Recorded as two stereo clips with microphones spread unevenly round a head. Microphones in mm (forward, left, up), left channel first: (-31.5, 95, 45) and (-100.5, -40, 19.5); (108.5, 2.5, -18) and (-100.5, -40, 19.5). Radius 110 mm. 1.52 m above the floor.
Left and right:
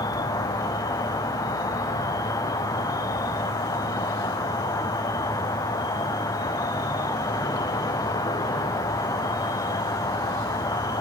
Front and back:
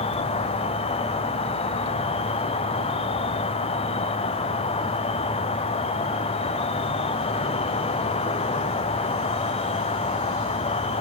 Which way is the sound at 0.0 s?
5° right.